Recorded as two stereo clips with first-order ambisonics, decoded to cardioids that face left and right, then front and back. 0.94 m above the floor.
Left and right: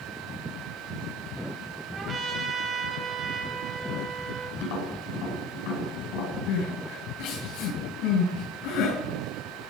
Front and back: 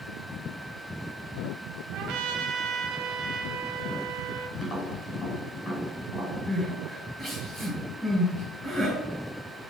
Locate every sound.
1.9 s a trumpet: 155° right, 1.7 m
4.6 s tapping: 75° left, 5.5 m
6.5 s crying: 80° left, 7 m